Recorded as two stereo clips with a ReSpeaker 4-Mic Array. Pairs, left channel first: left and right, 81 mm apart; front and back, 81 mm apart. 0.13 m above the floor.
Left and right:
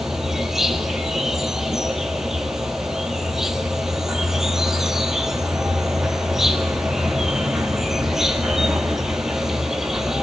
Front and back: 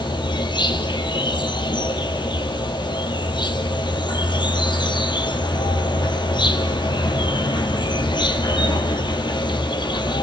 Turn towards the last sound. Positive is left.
turn(degrees=-5)